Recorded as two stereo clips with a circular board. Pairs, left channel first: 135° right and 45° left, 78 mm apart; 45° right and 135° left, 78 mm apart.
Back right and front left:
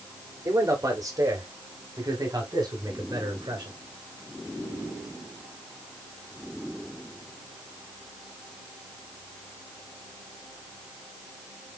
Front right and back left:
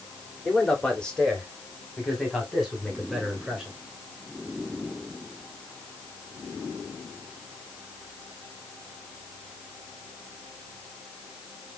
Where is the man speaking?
30° left, 1.7 m; by 3.7 s 45° left, 3 m.